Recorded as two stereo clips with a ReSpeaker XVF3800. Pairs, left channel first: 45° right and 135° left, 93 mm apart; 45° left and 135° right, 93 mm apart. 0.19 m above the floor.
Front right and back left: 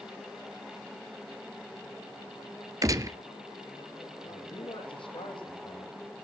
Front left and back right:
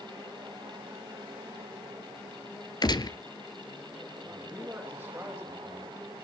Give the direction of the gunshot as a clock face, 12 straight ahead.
9 o'clock.